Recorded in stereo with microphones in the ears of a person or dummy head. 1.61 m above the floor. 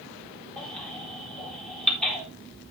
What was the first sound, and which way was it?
A baby crying, 5° left (ahead or behind).